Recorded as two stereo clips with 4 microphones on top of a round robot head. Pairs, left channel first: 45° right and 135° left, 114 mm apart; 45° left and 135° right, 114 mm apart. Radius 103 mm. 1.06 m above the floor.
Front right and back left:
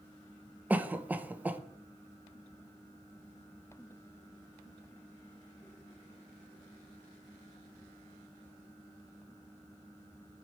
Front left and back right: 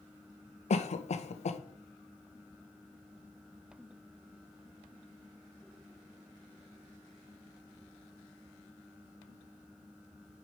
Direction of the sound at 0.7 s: 55° left.